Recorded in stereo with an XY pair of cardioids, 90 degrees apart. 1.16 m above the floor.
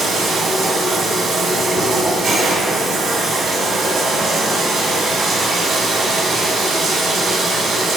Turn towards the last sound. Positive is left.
turn(degrees=-70)